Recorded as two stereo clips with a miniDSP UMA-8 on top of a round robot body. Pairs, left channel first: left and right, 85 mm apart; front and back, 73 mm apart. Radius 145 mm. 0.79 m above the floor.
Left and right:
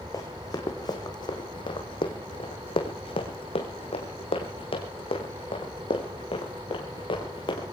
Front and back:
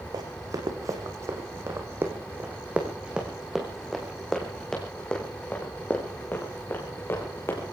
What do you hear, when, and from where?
0.1 s running footsteps: 140° left, 2.5 m; by 7.7 s 60° left, 4 m